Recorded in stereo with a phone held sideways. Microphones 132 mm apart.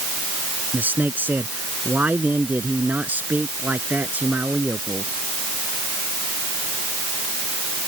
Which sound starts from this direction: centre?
A man speaking, at 0.7 s.